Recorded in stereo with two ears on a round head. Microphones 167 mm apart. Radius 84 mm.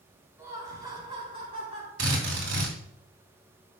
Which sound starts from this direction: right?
A drill, at 2.0 s.